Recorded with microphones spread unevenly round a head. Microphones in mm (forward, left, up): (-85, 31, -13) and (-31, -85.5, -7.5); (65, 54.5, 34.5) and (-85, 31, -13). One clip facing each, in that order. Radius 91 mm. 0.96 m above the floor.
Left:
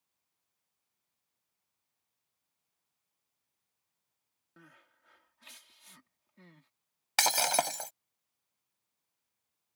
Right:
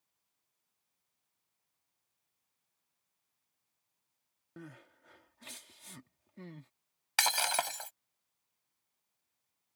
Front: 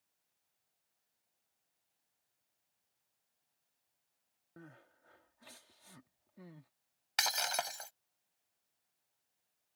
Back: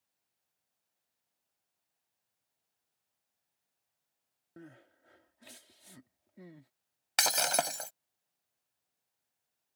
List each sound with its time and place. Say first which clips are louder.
4.6 s crying: right 10 dB, back 4 dB; 105° right
7.2 s breaking glass: left 4 dB, back 7 dB; 160° left